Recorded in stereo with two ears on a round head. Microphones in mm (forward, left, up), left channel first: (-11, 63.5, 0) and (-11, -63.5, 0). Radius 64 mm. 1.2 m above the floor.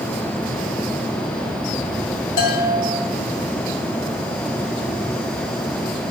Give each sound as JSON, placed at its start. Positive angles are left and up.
{"t": 2.4, "sound": "a bell", "side_deg": 70, "distance_m": 2.5}